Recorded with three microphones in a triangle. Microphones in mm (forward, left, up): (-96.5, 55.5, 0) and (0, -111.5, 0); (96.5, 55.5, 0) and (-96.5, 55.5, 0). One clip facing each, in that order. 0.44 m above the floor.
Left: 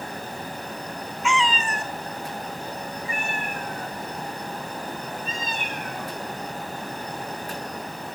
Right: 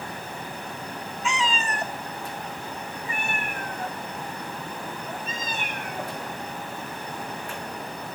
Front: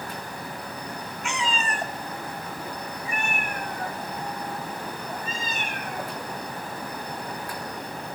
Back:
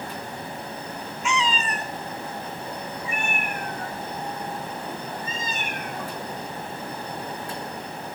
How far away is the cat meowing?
About 0.6 m.